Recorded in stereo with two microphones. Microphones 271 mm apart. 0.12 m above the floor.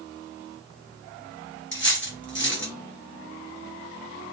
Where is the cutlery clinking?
45° left (ahead or behind), 1.2 m.